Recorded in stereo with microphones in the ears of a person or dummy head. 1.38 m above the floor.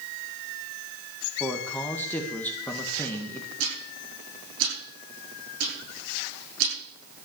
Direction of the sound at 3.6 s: 80° right.